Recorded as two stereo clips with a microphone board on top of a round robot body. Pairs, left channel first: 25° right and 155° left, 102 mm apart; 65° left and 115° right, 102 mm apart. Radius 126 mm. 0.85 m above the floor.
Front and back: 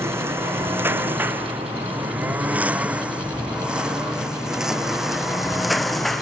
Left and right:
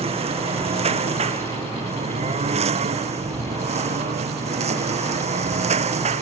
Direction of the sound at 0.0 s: 135° right.